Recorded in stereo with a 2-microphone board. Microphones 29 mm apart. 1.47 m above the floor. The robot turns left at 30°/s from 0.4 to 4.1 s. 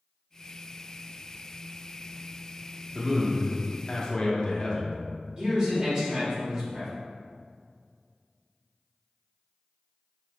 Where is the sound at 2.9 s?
175° right, 0.9 m; by 5.0 s 150° left, 0.9 m.